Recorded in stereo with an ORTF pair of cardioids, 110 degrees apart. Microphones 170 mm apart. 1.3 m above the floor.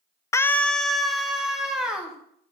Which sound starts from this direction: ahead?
A scream, at 0.3 s.